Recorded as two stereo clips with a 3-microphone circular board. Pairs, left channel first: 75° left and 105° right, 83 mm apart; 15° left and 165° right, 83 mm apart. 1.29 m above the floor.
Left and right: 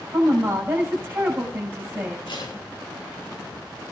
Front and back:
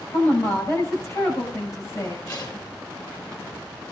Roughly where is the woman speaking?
Ahead right.